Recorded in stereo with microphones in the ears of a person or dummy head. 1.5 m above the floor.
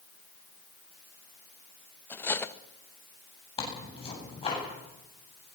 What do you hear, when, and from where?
2.1 s cutlery clinking: 10° left (ahead or behind), 1.0 m
3.6 s tearing paper: 30° left (ahead or behind), 8.5 m